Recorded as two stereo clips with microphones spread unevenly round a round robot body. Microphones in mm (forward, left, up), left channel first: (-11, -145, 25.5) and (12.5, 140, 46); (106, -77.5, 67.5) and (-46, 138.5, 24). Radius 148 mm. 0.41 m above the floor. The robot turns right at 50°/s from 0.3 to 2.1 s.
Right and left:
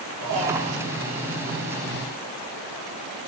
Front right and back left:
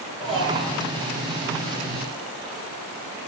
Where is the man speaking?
55° left, 5.5 m; by 0.8 s 80° left, 5.5 m.